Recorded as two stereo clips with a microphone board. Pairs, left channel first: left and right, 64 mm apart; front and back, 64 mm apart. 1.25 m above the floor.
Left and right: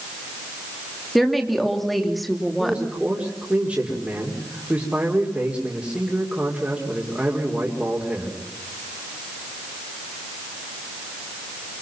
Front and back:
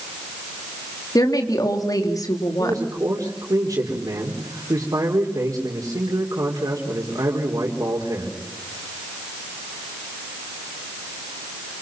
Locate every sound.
1.1 s a woman speaking: straight ahead, 3 m
2.6 s a man speaking: 160° right, 4 m